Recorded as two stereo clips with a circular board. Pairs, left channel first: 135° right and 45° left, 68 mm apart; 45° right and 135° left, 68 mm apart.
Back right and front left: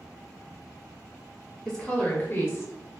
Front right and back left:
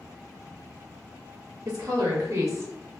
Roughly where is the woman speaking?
Behind left.